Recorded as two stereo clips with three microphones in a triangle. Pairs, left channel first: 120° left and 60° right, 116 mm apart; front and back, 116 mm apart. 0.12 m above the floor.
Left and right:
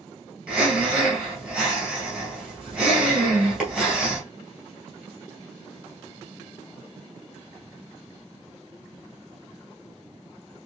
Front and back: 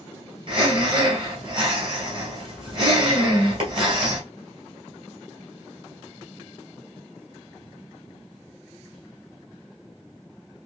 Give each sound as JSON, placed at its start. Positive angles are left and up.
{"t": 0.5, "sound": "breathing", "azimuth_deg": -145, "distance_m": 2.0}